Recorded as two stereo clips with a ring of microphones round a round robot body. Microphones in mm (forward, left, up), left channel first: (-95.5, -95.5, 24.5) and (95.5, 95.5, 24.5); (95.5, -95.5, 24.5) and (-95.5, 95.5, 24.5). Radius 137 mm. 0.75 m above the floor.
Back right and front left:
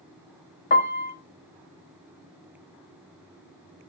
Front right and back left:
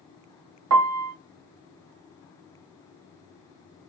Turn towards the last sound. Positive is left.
turn(degrees=165)